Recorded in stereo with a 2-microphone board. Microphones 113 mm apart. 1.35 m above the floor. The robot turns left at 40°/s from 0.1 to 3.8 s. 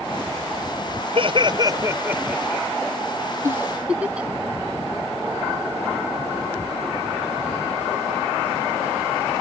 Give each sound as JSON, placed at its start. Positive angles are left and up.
{"t": 1.1, "sound": "laughter", "azimuth_deg": -125}
{"t": 3.4, "sound": "a giggle", "side_deg": -25}